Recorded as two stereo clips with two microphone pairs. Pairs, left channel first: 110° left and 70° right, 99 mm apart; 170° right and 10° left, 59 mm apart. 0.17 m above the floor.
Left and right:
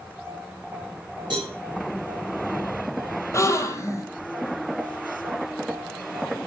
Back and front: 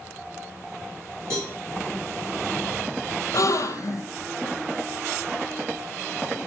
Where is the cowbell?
30° right, 6.5 m.